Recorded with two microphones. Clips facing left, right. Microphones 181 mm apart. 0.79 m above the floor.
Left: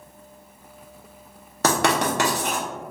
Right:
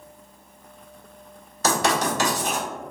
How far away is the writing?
About 0.9 m.